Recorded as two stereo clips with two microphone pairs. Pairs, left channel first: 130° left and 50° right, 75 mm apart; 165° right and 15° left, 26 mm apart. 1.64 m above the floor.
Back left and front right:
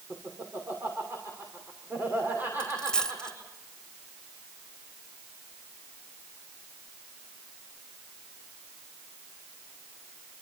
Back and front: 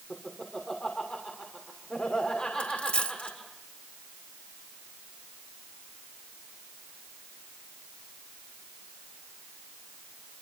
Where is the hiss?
No hiss in this recording.